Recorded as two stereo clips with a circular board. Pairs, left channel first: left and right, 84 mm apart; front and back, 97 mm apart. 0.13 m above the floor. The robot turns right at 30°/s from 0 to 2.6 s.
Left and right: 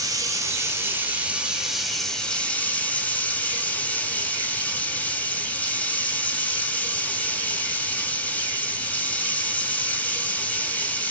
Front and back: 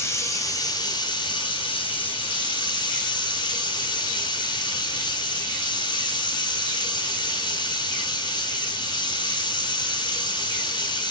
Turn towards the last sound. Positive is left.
turn(degrees=20)